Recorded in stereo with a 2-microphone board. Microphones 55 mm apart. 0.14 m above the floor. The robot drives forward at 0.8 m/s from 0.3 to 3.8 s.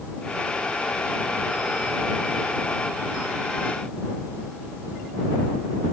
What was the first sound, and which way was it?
Only background noise.